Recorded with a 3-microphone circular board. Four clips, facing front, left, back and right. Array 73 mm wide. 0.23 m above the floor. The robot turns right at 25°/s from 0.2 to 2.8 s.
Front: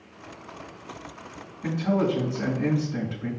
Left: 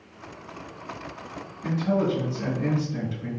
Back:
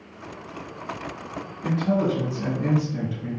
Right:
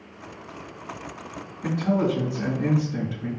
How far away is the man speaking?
About 1.8 m.